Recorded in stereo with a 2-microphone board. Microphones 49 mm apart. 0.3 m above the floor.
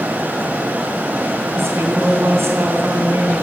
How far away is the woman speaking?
About 3 m.